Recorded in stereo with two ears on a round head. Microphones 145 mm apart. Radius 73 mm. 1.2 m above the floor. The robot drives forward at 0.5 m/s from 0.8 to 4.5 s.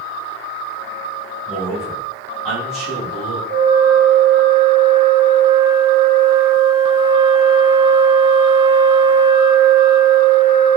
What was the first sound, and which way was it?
A man speaking, centre (ahead or behind).